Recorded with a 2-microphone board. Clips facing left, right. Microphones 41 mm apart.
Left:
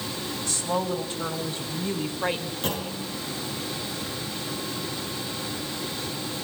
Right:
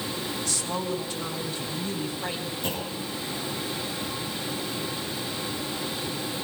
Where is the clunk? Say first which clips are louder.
Left 1 dB; 60° left (ahead or behind), 6.5 m.